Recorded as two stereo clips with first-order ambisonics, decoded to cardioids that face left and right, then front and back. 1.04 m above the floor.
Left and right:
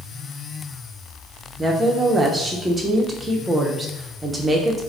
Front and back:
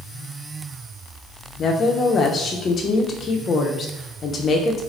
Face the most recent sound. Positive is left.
turn(degrees=-25)